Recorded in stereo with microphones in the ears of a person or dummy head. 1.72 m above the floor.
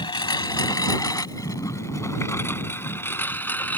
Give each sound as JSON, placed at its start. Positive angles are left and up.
{"t": 0.0, "sound": "a lawn mower", "side_deg": 25}